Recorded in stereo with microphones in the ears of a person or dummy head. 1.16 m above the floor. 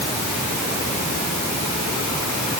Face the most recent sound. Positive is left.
No sound to turn to.